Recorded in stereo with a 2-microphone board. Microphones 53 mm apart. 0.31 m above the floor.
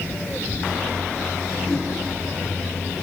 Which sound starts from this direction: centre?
A whoosh, at 1.7 s.